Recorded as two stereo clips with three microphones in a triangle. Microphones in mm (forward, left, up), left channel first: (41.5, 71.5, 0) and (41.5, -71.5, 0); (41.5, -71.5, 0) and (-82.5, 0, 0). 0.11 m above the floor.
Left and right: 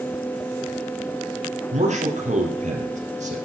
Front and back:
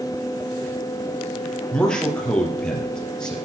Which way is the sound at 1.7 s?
115° right.